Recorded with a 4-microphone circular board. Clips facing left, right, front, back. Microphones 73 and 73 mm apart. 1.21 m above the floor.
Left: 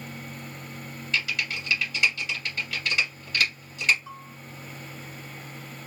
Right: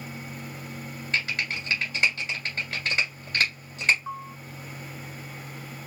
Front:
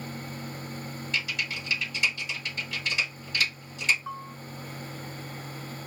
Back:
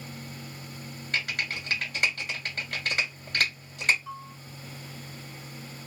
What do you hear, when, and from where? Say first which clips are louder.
1.1 s typing on a keyboard: even, back 2 dB; 145° right, 2.0 m
4.1 s a bell: right 7 dB, front 3 dB; 45° right, 0.8 m